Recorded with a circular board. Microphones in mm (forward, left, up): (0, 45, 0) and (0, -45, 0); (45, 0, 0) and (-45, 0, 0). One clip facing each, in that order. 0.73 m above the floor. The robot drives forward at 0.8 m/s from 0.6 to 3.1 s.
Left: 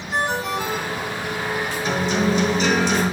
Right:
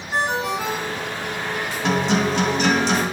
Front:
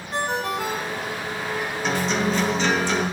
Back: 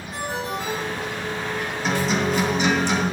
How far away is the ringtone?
About 5.5 m.